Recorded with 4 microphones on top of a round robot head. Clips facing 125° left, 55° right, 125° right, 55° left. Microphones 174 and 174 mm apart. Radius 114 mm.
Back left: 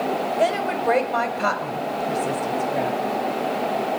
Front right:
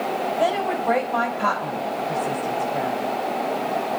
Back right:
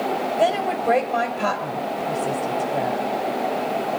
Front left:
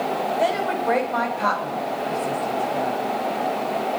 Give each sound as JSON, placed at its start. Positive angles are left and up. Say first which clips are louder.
{"t": 0.4, "sound": "a woman speaking", "louder": "even, back right 3 dB", "azimuth_deg": 170, "distance_m": 3.0}